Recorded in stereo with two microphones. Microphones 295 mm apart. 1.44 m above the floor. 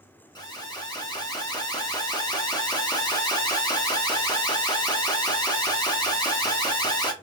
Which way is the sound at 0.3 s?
15° left (ahead or behind).